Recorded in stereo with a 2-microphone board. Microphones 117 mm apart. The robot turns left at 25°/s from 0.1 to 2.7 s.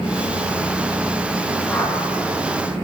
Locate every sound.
1.7 s a whoosh: 10° left (ahead or behind), 2.5 m; by 2.0 s 20° left (ahead or behind), 2.5 m